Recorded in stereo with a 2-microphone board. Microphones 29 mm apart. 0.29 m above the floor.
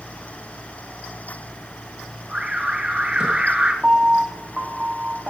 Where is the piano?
35° right (ahead or behind), 4 m.